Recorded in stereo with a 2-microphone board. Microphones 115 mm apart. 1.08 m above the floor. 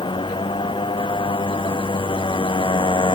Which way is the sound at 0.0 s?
50° left (ahead or behind).